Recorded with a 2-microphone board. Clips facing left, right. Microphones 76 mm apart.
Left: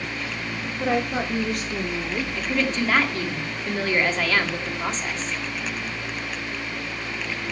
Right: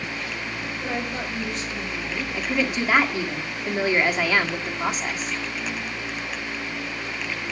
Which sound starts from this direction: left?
A woman speaking, at 0.8 s.